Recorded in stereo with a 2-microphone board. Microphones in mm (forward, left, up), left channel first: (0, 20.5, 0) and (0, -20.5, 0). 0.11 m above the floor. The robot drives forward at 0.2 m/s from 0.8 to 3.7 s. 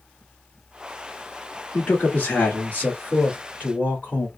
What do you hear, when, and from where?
1.7 s a man speaking: 40° left (ahead or behind), 1.5 m; by 4.3 s 35° left (ahead or behind), 1.6 m